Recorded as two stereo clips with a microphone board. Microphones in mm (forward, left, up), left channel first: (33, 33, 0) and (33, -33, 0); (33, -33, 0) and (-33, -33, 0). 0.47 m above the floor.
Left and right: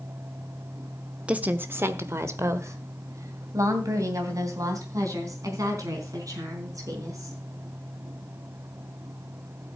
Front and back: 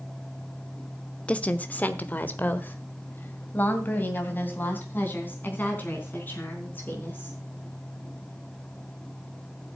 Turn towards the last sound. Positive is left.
turn(degrees=-60)